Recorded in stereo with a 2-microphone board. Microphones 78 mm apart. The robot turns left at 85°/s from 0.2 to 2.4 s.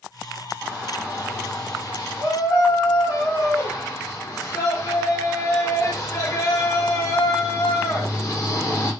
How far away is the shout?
About 1.1 m.